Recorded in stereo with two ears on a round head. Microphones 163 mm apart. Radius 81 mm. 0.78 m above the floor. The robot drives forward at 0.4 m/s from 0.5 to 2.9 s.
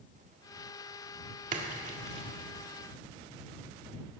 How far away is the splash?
About 1.9 m.